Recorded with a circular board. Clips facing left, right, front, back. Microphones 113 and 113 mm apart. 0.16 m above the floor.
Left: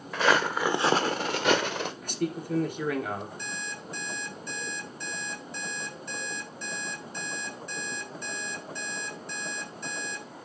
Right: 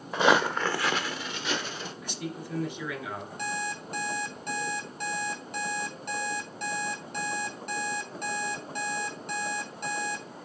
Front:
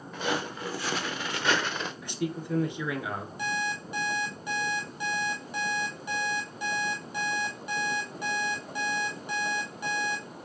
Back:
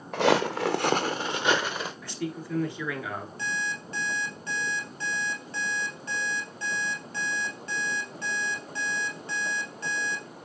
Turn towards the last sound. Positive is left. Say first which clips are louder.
# right 5 dB, front 4 dB
turn(degrees=-75)